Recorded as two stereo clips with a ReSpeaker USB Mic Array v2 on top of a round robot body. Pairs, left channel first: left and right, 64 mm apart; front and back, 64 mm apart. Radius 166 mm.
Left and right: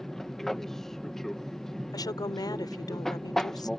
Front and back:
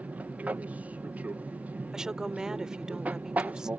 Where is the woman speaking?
100° left.